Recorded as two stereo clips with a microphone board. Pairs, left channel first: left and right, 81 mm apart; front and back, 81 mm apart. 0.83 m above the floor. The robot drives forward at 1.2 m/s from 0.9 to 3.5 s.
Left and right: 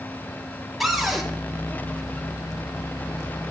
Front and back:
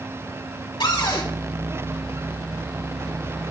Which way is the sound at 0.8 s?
Straight ahead.